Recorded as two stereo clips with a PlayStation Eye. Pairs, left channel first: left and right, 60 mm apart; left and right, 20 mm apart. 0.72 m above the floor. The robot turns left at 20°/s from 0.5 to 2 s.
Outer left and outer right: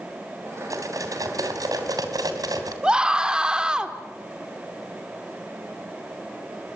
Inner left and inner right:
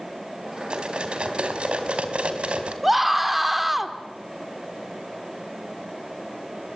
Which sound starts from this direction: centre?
A scream, at 2.8 s.